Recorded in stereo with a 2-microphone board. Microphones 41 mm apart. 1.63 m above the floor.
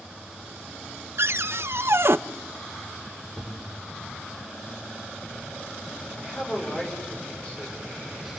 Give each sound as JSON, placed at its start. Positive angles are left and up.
{"t": 1.2, "sound": "a cupboard door", "side_deg": -65, "distance_m": 0.5}
{"t": 3.4, "sound": "a thud", "side_deg": 55, "distance_m": 7.5}
{"t": 6.2, "sound": "a man speaking", "side_deg": 20, "distance_m": 6.5}